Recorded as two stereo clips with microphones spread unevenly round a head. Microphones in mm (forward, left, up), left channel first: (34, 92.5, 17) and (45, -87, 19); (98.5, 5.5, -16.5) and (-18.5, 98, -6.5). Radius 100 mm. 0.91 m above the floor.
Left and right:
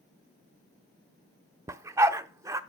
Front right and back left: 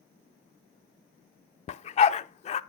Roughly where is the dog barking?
Ahead.